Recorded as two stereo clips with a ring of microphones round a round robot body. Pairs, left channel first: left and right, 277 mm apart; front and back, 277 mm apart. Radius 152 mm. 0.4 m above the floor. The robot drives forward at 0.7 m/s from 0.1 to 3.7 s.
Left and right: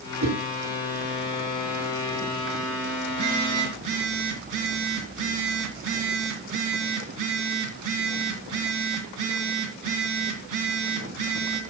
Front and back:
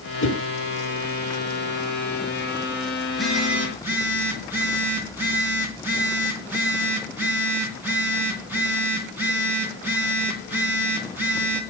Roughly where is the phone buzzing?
Right.